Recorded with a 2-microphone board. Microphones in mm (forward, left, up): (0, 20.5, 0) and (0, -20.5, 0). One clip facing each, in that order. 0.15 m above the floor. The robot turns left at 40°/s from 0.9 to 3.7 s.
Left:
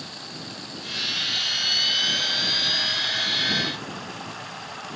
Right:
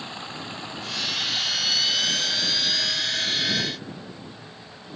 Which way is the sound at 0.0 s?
150° right.